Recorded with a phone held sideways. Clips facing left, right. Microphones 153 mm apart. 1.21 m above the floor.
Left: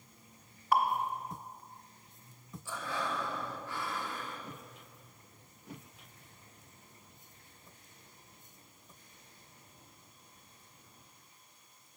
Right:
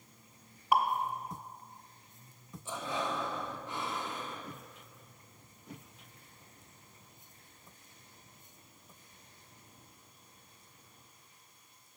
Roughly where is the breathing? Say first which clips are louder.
Right 2 dB; centre.